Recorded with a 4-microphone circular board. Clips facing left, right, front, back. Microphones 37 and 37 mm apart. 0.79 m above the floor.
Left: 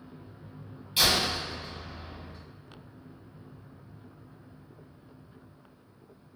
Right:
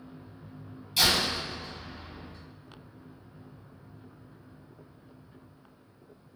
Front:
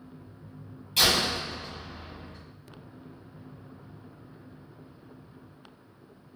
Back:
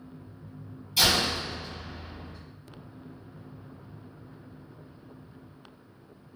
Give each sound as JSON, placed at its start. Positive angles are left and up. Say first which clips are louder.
{"t": 1.0, "sound": "a door slam", "louder": "even, even", "azimuth_deg": 25, "distance_m": 2.0}